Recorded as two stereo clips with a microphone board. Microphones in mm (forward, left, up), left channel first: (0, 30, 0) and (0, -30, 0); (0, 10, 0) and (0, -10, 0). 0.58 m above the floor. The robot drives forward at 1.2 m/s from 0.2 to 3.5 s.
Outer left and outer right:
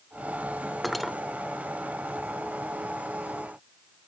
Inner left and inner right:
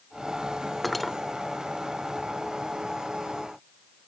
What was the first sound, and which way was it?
Cutlery clinking, centre (ahead or behind).